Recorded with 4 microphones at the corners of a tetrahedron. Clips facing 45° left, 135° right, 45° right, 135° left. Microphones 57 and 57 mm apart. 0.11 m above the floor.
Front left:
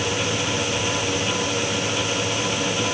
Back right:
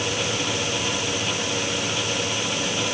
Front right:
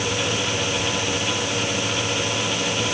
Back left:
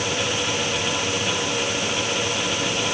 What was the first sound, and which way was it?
Only background noise.